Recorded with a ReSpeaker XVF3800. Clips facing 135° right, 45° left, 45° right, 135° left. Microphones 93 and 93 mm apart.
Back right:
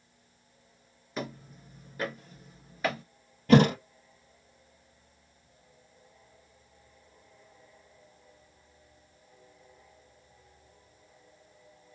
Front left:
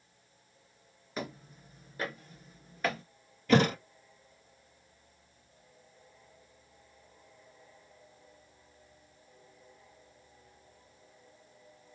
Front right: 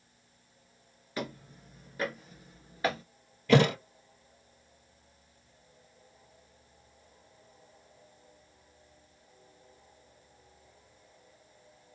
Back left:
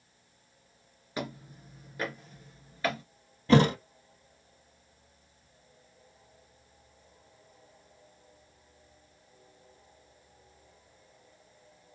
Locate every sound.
1.2 s footsteps: 120° left, 1.3 m; by 3.0 s 65° right, 1.4 m
3.5 s a thud: 175° right, 2.0 m